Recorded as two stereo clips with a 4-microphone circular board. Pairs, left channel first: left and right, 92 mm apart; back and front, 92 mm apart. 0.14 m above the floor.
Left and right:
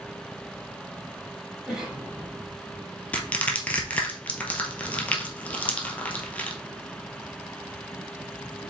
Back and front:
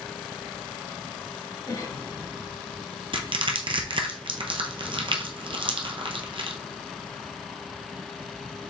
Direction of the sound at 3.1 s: 15° left.